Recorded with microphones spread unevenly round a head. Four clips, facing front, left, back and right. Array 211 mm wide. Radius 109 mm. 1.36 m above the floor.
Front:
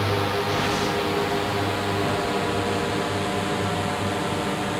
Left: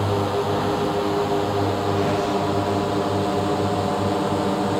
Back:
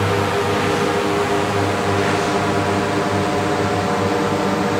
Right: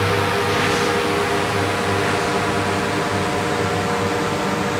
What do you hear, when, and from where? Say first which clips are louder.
0.0 s a drone: right 3 dB, back 6 dB; 170° left; by 4.8 s 165° left